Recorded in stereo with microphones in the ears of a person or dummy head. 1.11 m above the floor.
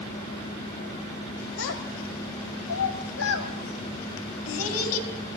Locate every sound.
1.6 s a child speaking: 75° left (ahead or behind), 3 m; by 5.1 s 80° left, 4.5 m